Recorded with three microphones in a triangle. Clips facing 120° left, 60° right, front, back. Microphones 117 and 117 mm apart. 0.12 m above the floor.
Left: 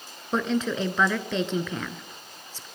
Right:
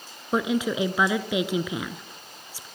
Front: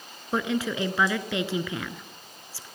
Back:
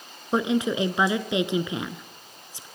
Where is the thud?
No thud in this recording.